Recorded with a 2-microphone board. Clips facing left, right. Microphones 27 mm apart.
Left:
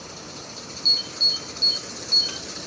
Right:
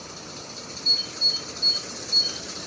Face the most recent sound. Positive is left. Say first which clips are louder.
# left 2 dB
turn(degrees=65)  # may be behind; listen again after turning